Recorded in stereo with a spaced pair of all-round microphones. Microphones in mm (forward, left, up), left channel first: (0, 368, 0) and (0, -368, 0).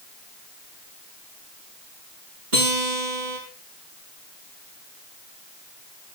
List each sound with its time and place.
2.5 s a guitar: 80° right, 8.5 m